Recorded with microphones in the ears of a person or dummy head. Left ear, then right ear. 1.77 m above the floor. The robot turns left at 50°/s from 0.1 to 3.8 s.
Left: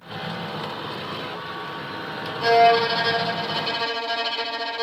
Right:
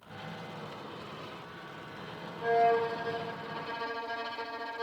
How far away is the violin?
About 0.8 m.